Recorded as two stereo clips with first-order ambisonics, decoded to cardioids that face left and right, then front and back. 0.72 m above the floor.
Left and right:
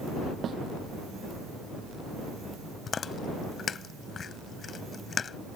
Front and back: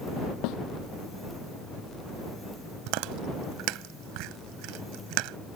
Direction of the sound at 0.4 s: 30° right.